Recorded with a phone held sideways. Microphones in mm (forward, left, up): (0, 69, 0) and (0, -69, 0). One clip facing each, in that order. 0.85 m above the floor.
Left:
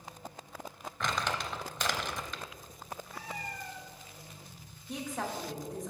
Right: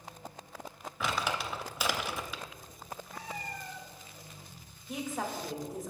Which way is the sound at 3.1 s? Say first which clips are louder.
Right 2 dB; 5° left (ahead or behind).